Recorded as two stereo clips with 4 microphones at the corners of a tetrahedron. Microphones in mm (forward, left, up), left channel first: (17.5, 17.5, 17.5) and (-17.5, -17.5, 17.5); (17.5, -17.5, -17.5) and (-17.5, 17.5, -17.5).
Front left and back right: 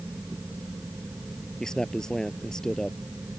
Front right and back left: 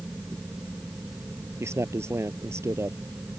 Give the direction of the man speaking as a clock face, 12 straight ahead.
8 o'clock.